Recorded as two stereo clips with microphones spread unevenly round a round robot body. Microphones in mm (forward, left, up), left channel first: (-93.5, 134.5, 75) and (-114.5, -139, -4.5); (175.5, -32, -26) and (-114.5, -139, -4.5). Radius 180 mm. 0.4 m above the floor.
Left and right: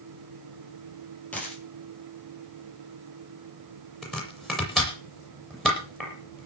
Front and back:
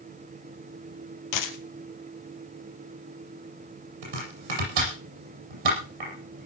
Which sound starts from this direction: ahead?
A dropped coin, at 1.3 s.